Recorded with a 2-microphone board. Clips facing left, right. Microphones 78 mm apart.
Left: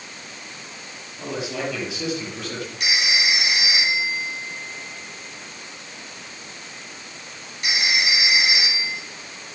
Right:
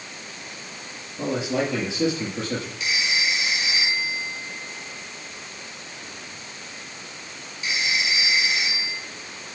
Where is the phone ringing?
75° left (ahead or behind), 3 m.